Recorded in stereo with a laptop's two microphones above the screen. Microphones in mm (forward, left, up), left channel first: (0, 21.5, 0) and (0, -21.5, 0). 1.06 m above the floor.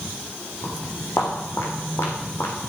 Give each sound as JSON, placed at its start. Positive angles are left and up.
{"t": 0.6, "sound": "footsteps", "side_deg": 65, "distance_m": 3.5}